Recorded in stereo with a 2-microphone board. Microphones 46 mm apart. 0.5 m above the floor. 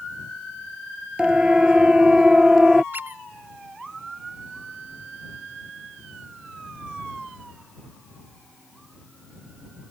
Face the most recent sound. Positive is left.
turn(degrees=-45)  # may be behind; listen again after turning